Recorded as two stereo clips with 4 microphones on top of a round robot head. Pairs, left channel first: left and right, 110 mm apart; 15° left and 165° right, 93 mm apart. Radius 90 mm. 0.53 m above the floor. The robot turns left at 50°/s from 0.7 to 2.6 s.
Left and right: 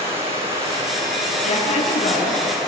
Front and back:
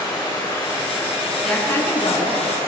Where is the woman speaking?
95° left, 7 m; by 2.4 s 50° left, 7 m.